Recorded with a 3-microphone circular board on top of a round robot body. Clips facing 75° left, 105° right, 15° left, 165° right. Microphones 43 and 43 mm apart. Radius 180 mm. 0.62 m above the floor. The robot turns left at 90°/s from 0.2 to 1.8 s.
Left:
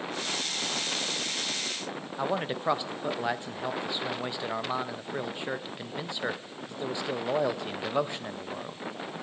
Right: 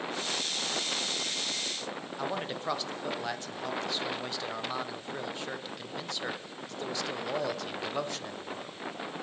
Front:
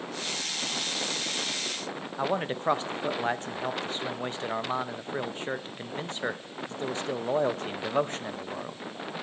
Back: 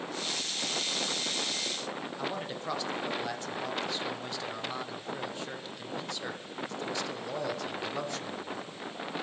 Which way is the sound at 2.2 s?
20° left.